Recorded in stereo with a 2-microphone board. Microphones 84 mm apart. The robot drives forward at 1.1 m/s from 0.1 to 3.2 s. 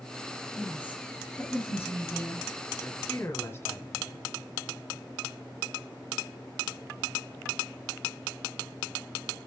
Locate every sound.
0.6 s a woman speaking: 20° left (ahead or behind), 4.5 m; by 2.5 s 35° left (ahead or behind), 3 m
2.8 s a man speaking: 25° left (ahead or behind), 1.9 m; by 4.3 s 30° left (ahead or behind), 1.5 m